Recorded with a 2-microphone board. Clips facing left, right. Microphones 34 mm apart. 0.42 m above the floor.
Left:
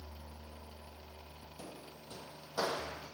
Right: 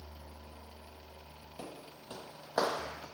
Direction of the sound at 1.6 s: 40° right (ahead or behind).